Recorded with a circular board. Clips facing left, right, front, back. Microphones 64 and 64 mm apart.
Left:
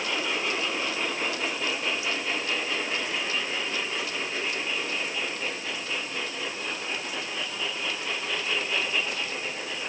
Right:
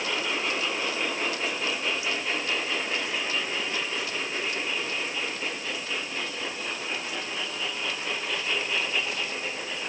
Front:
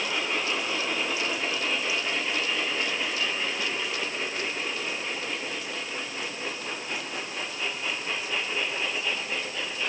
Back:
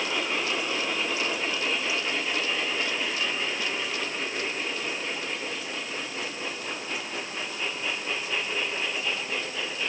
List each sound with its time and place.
Only background noise.